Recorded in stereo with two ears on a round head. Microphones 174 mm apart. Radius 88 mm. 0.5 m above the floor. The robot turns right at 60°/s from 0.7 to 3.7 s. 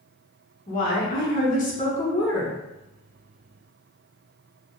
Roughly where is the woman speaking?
Ahead left.